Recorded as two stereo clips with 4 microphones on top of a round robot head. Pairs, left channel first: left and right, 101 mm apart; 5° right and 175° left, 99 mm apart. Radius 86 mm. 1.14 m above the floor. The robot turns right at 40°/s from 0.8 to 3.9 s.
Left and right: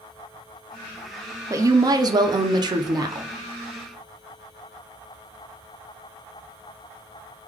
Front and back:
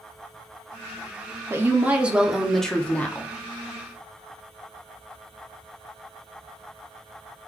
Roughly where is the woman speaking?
Behind right.